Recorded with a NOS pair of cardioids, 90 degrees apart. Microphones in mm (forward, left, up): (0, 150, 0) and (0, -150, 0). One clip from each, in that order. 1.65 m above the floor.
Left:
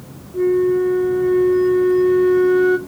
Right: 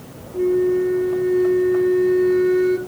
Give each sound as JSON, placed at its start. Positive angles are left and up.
{"t": 0.3, "sound": "a flute", "azimuth_deg": 25, "distance_m": 1.1}